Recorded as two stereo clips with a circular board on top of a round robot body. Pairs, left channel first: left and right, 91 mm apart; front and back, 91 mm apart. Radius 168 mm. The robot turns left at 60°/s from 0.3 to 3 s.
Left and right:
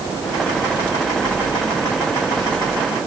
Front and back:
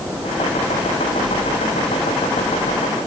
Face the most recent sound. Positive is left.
No sound to turn to.